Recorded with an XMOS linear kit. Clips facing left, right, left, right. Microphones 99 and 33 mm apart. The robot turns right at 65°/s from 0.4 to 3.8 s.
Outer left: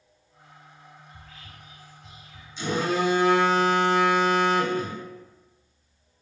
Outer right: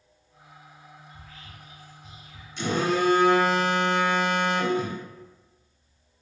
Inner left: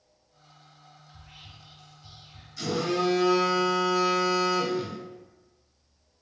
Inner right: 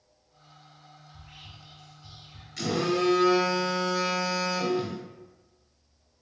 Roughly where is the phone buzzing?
Right.